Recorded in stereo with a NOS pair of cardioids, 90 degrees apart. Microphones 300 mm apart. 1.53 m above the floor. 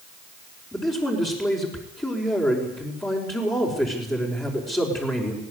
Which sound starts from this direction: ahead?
A man speaking, at 0.7 s.